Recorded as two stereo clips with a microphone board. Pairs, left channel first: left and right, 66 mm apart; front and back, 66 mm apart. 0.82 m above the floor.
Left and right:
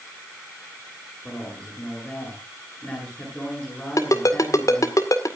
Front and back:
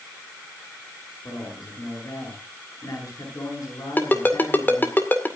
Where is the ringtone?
60° left, 2.0 m.